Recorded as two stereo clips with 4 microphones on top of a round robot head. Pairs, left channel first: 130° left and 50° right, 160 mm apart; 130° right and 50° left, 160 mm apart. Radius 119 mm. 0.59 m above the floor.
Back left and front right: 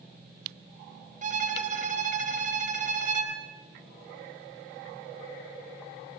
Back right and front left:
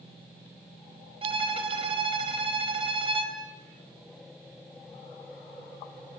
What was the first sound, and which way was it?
A violin, 5° right.